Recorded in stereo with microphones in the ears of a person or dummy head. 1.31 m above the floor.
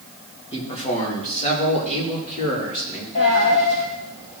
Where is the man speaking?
30° left (ahead or behind), 2.0 m; by 3.0 s 45° left (ahead or behind), 3.5 m.